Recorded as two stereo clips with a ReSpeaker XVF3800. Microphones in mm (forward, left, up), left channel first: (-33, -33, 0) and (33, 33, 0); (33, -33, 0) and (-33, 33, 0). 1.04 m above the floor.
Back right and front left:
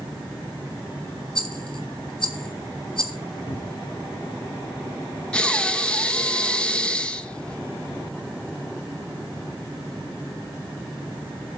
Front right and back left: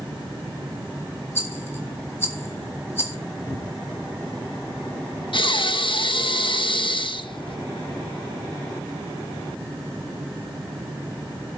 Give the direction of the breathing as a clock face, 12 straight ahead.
2 o'clock.